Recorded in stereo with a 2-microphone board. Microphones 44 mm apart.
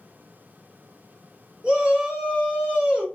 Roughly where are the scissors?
I don't hear scissors.